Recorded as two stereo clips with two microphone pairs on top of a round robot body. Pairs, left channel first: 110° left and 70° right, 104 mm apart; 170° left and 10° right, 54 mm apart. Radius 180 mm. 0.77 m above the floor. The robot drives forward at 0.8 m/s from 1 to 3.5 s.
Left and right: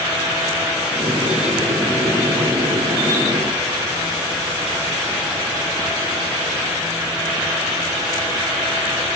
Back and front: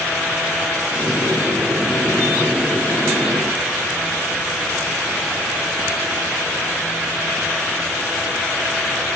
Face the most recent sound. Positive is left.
No sound to turn to.